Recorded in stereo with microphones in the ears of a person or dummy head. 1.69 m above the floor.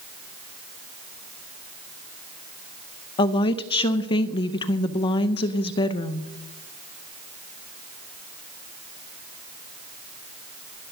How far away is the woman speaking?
About 0.7 m.